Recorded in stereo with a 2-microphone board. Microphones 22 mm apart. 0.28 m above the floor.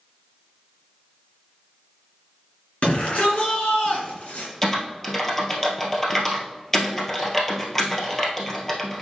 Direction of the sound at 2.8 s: 60° left (ahead or behind).